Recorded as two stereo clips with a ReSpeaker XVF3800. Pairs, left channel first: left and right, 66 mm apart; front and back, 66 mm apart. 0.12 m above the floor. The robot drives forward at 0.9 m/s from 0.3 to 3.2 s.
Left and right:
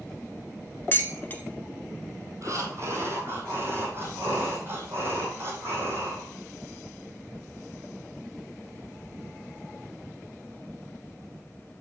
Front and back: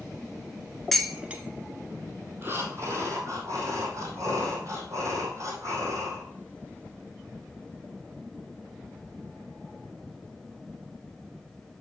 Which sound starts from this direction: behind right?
Breathing, at 2.4 s.